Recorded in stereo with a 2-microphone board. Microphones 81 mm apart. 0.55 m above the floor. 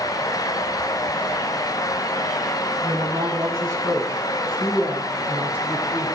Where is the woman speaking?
50° right (ahead or behind), 5.5 m; by 6.1 s 15° right (ahead or behind), 6 m.